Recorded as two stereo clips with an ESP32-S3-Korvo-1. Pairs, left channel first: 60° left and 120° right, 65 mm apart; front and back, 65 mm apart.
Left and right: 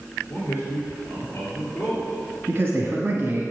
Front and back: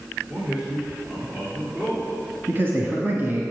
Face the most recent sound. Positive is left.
turn(degrees=-145)